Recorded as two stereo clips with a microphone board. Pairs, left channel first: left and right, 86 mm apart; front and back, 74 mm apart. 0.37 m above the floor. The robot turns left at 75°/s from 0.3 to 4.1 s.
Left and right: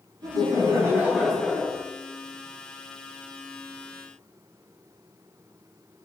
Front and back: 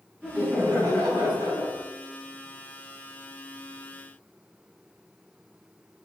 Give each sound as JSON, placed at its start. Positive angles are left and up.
{"t": 0.2, "sound": "laughter", "azimuth_deg": -105, "distance_m": 3.0}